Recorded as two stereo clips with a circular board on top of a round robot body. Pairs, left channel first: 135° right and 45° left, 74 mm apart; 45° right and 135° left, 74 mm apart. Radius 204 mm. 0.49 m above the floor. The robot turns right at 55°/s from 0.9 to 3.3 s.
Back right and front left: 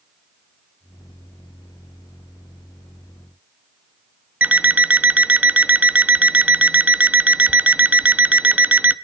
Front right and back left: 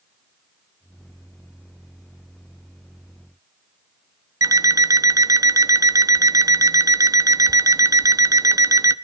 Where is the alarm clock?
110° left, 0.7 m.